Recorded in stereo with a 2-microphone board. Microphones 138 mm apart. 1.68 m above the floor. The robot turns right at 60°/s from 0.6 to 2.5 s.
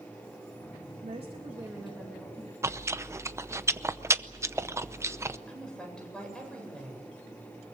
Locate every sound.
1.0 s a woman speaking: 60° right, 3 m; by 2.5 s 30° left, 3 m
2.6 s chewing: 20° right (ahead or behind), 0.7 m
5.5 s a woman speaking: 5° left (ahead or behind), 8.5 m